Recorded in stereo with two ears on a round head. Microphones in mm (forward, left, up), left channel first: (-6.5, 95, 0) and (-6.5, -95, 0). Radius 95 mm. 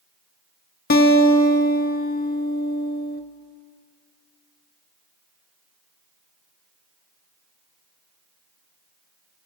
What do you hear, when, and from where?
0.9 s a guitar: 45° left (ahead or behind), 0.7 m